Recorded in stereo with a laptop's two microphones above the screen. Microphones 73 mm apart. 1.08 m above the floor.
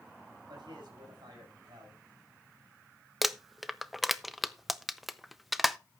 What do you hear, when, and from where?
0.5 s a man speaking: 75° right (ahead or behind), 6 m
3.2 s crumpling: centre (ahead or behind), 0.6 m